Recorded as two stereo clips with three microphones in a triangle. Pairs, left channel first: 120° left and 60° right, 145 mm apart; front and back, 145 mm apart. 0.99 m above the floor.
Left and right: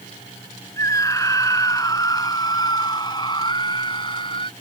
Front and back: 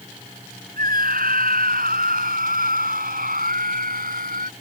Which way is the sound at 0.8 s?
170° right.